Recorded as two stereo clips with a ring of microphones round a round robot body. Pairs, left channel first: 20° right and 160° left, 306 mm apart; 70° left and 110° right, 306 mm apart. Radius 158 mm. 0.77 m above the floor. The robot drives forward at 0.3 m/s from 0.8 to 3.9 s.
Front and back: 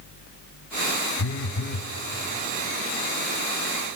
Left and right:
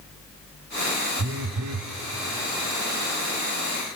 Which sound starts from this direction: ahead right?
A phone buzzing, at 1.2 s.